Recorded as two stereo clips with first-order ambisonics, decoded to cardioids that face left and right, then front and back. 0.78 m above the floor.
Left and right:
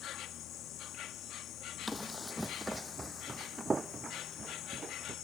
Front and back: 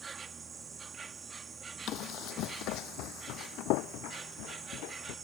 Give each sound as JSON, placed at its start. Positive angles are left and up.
{"t": 0.0, "sound": "an insect", "azimuth_deg": 115}
{"t": 1.9, "sound": "running footsteps", "azimuth_deg": 10}